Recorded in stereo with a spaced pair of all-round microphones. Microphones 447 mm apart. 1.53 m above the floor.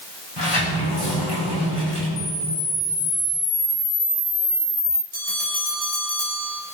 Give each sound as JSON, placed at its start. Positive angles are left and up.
{"t": 0.4, "sound": "a sliding door", "side_deg": 65, "distance_m": 6.0}
{"t": 2.2, "sound": "a camera shutter", "side_deg": -10, "distance_m": 1.3}
{"t": 5.1, "sound": "a bell", "side_deg": 20, "distance_m": 6.0}